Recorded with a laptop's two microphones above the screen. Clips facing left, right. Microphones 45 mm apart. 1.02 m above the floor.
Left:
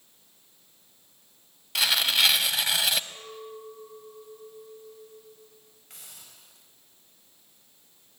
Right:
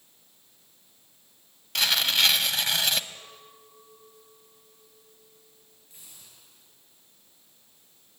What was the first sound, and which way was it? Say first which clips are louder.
Tearing paper: even; 5° left (ahead or behind).